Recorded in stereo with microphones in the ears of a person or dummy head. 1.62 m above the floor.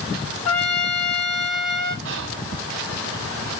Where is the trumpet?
15° left (ahead or behind), 1.6 m.